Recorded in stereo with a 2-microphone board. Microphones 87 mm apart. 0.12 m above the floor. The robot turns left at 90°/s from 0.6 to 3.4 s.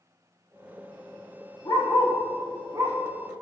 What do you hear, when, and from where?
1.6 s a dog barking: 65° left (ahead or behind), 3.5 m; by 3.0 s 50° right (ahead or behind), 3.5 m